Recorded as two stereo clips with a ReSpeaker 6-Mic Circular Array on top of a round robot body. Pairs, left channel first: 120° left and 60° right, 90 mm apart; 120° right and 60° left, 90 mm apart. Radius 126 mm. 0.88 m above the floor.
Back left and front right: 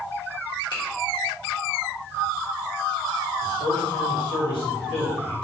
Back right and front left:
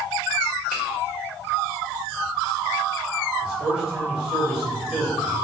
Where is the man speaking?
145° left, 1.9 m.